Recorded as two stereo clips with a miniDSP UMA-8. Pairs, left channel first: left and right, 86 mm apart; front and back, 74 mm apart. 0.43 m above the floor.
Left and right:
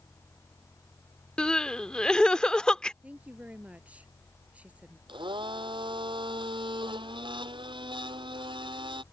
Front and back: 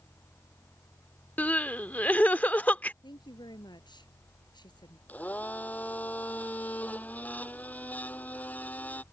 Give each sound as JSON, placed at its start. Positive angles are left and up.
{"t": 1.4, "sound": "crying", "azimuth_deg": 25}
{"t": 3.0, "sound": "a woman speaking", "azimuth_deg": -15}
{"t": 5.1, "sound": "a blender", "azimuth_deg": -70}